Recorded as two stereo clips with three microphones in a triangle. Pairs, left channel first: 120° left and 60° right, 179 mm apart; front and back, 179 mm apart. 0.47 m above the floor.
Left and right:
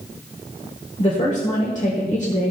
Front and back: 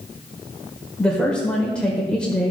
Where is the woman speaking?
85° left, 1.4 m.